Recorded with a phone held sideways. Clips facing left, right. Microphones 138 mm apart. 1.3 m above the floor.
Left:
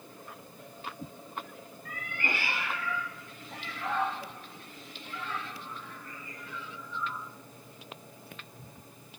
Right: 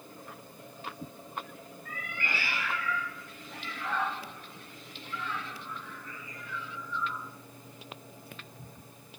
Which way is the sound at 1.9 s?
60° left (ahead or behind).